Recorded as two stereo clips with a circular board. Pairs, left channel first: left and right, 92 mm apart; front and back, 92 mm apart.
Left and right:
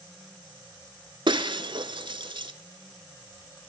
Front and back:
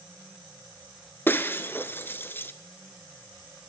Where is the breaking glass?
65° right, 0.7 m.